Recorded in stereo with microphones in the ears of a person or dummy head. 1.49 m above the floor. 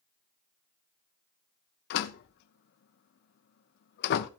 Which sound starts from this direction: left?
A door slam, at 1.9 s.